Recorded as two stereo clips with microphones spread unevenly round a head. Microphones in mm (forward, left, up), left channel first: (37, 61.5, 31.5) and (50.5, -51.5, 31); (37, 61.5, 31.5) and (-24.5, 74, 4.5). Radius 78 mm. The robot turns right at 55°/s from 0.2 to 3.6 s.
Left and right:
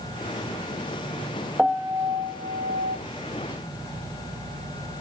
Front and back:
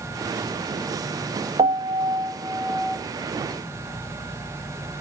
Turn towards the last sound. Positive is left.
turn(degrees=-60)